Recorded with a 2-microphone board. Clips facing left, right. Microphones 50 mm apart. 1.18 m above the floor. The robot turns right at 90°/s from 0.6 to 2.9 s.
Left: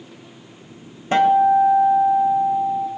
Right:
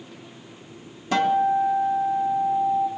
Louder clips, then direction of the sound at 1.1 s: Left 6 dB; 35° left.